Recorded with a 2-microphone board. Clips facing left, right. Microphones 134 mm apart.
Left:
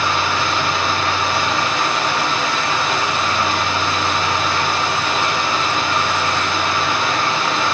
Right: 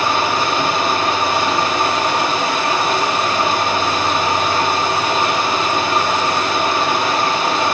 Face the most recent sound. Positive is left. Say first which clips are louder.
# right 2 dB
turn(degrees=-45)  # may be behind; listen again after turning